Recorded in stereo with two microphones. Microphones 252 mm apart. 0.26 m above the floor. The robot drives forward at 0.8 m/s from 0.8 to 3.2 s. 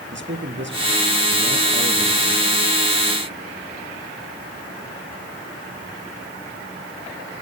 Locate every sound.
0.1 s a man speaking: 50° right (ahead or behind), 3 m; by 2.6 s 35° right (ahead or behind), 4 m